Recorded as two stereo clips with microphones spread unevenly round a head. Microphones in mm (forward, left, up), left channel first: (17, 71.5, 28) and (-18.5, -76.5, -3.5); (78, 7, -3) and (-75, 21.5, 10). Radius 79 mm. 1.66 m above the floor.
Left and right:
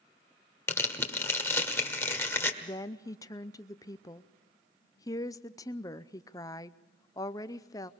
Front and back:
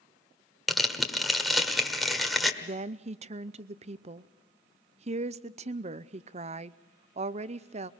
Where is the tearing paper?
95° left, 1.4 m.